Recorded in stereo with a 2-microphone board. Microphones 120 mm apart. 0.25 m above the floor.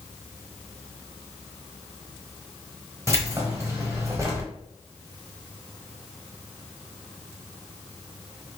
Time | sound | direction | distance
3.1 | keys jangling | 25° right (ahead or behind) | 1.0 m